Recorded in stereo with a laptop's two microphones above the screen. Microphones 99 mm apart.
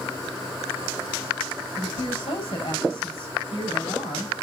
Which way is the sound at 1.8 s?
85° left.